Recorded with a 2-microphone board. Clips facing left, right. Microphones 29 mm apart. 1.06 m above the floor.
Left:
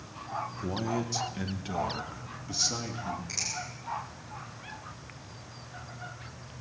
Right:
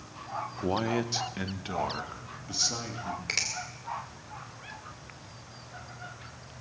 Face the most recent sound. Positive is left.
turn(degrees=-75)  # may be behind; listen again after turning